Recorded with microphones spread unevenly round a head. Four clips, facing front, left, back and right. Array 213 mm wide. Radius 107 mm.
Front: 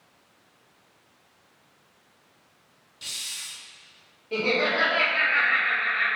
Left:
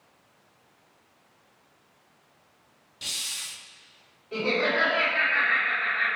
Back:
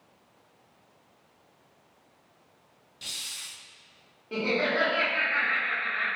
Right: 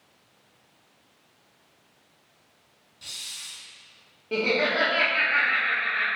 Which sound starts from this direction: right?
Laughter, at 4.3 s.